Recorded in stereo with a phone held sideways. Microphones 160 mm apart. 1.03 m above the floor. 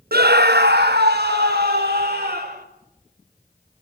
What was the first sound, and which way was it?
A scream, 70° right (ahead or behind).